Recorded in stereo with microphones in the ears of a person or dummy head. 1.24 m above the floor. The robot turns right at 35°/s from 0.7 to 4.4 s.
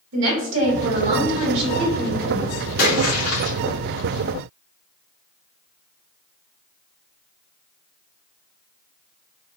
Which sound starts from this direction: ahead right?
A woman speaking, at 0.1 s.